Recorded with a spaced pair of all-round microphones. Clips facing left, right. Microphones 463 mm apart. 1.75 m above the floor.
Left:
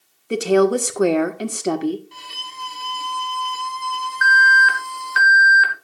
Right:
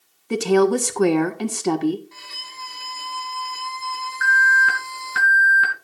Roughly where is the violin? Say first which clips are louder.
Left 3 dB; left.